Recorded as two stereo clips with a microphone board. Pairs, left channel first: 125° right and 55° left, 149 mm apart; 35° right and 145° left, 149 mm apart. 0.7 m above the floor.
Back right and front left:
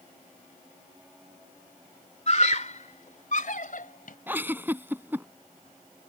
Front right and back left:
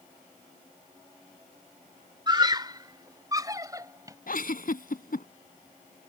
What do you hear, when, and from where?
2.3 s a scream: 160° right; by 4.2 s 145° right
4.3 s a giggle: 20° right